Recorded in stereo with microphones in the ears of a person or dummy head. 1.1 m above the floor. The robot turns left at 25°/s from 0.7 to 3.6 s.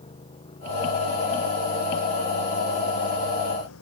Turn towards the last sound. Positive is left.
turn(degrees=80)